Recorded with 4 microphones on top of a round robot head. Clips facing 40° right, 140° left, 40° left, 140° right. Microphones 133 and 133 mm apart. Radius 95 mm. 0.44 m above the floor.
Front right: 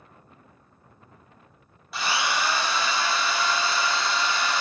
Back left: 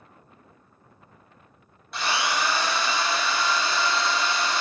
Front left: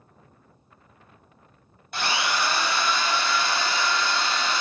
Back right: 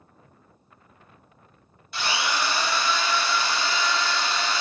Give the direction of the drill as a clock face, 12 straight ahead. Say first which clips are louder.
Even, front left 1 dB; 11 o'clock.